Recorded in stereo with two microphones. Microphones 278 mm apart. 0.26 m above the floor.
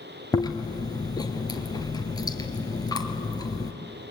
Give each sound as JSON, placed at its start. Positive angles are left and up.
{"t": 0.3, "sound": "chewing", "side_deg": 15, "distance_m": 2.0}